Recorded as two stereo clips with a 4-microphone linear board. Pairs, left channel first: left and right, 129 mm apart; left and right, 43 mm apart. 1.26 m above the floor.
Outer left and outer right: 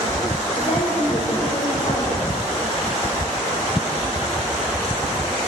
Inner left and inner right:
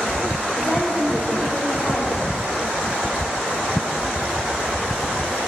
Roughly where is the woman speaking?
Left.